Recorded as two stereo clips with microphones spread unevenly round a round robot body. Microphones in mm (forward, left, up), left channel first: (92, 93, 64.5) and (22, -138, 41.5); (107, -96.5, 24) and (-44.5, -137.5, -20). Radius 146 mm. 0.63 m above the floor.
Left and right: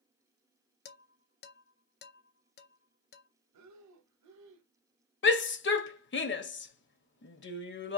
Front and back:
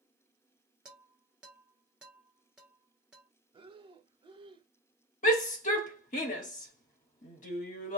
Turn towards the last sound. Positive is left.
turn(degrees=60)